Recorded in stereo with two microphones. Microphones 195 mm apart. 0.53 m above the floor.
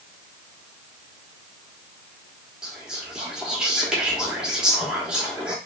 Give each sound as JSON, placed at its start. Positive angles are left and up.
{"t": 2.6, "sound": "whispering", "side_deg": -5, "distance_m": 0.7}